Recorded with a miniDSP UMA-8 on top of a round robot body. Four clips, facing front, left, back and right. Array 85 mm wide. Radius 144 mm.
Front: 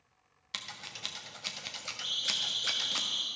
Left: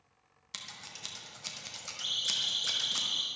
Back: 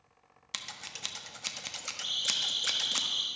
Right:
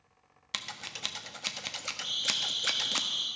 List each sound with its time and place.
0.5 s scissors: 100° right, 1.3 m
2.0 s a siren: 125° left, 4.5 m; by 3.3 s 140° left, 4.5 m